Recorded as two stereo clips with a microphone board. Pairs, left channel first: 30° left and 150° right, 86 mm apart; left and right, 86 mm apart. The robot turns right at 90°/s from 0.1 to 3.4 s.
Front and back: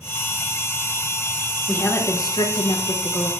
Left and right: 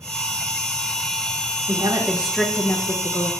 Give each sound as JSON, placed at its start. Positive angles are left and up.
{"t": 1.7, "sound": "a woman speaking", "azimuth_deg": -55, "distance_m": 0.7}